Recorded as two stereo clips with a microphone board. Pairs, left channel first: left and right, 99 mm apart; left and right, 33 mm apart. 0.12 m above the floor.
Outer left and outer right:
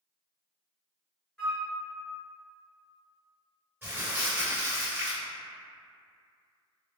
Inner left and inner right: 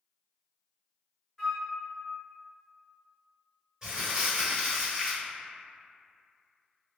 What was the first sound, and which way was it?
A flute, 10° left (ahead or behind).